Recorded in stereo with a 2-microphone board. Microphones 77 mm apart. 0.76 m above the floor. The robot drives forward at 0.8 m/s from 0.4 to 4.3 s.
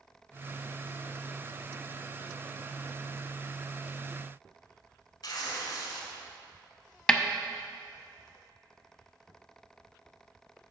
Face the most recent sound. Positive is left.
turn(degrees=5)  # may be behind; listen again after turning